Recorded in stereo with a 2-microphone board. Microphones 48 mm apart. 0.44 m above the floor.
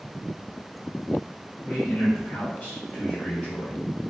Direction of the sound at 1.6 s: 40° left (ahead or behind).